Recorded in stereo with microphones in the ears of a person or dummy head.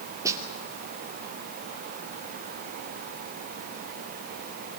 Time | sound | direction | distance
0.2 | a snare drum | 20° right (ahead or behind) | 2.5 m